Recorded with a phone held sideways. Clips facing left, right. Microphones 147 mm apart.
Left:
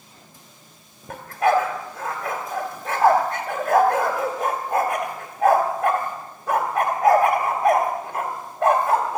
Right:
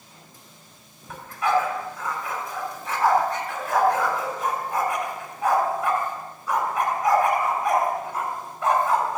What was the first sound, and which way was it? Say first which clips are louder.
A dog barking: left 4 dB; 65° left (ahead or behind).